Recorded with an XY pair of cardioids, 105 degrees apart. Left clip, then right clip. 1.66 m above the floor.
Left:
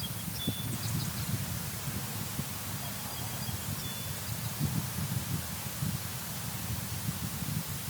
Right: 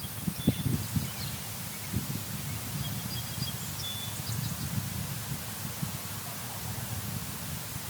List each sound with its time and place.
Only background noise.